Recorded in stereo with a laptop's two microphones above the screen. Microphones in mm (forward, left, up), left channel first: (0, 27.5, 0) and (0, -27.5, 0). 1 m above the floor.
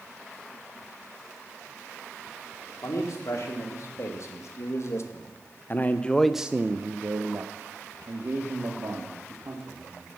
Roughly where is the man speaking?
Left.